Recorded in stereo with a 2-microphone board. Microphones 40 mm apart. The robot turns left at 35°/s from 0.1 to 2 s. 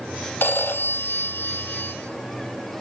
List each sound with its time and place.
0.4 s a phone ringing: 110° left, 2.5 m; by 1.9 s 60° left, 2.5 m